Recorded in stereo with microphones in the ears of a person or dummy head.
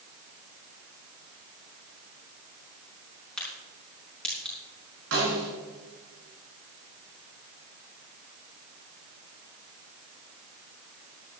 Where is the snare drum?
70° right (ahead or behind), 7 m.